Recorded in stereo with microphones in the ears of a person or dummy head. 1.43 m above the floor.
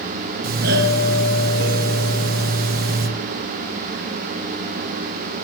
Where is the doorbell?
45° right (ahead or behind), 1.1 m.